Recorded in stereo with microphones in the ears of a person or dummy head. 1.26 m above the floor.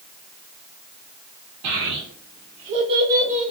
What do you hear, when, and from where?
1.6 s a child speaking: 70° right (ahead or behind), 1.0 m; by 3.5 s 5° right (ahead or behind), 0.9 m